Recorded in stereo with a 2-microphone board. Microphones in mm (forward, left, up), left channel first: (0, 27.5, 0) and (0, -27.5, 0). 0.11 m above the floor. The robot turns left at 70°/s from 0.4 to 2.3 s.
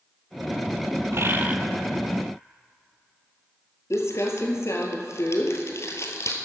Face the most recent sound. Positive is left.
turn(degrees=60)  # may be behind; listen again after turning